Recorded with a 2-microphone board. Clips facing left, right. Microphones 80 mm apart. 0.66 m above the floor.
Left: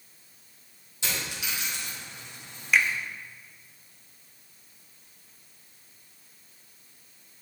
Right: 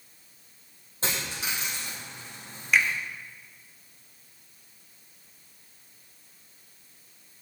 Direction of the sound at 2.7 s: Centre (ahead or behind).